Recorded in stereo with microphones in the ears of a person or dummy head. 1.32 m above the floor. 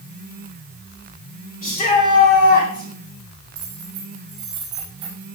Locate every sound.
1.6 s a shout: 30° left (ahead or behind), 4.5 m; by 2.9 s 40° left (ahead or behind), 4.5 m
3.5 s keys jangling: 25° right (ahead or behind), 5.5 m